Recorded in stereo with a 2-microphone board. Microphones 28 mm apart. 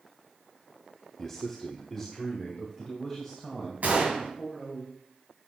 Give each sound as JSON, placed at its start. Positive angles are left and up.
{"t": 1.2, "sound": "a man speaking", "side_deg": 10, "distance_m": 0.9}
{"t": 3.8, "sound": "a gunshot", "side_deg": -70, "distance_m": 2.5}